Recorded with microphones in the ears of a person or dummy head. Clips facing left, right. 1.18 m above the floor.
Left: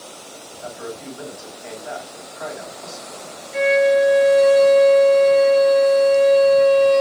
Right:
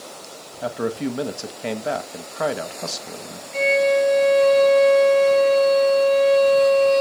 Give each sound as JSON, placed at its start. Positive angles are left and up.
{"t": 0.6, "sound": "a man speaking", "side_deg": -75, "distance_m": 1.4}
{"t": 3.5, "sound": "a violin", "side_deg": 25, "distance_m": 5.5}